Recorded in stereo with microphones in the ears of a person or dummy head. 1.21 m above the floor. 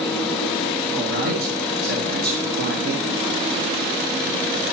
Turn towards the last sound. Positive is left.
turn(degrees=-65)  # may be behind; listen again after turning